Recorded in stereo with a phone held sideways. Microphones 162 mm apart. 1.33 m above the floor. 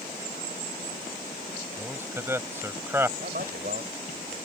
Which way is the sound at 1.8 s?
15° right (ahead or behind).